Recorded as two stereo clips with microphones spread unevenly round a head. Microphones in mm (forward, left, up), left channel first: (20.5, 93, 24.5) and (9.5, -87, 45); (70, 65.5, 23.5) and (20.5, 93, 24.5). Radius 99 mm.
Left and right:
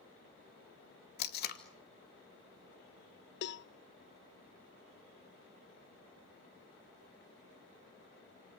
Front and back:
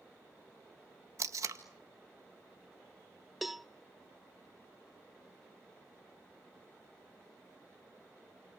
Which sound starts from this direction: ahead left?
A cowbell, at 3.4 s.